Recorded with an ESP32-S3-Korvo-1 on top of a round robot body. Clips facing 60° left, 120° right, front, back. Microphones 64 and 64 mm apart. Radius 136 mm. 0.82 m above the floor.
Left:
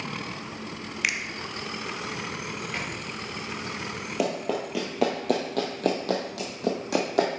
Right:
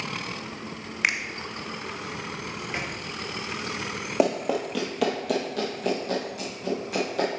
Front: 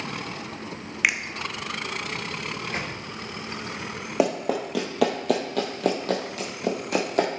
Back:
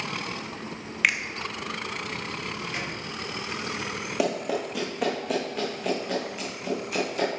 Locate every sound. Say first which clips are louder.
1.0 s a finger snap: right 3 dB, even; 80° right, 0.9 m
2.7 s a microwave: right 3 dB, front 2 dB; 45° right, 1.2 m
4.2 s running footsteps: right 4 dB, front 3 dB; 60° right, 0.9 m; by 7.3 s 40° left, 2 m